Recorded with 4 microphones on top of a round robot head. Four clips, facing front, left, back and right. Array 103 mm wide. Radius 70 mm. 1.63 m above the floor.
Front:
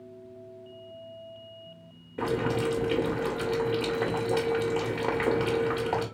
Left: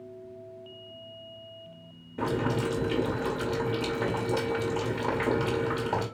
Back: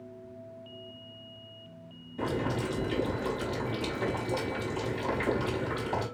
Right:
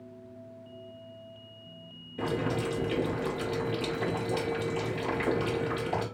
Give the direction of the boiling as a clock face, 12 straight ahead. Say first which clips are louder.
Left 2 dB, front 4 dB; 11 o'clock.